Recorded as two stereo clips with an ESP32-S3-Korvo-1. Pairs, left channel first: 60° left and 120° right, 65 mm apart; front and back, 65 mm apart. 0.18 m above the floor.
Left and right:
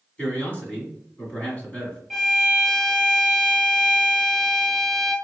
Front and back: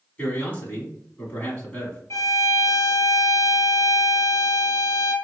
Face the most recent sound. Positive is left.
turn(degrees=-30)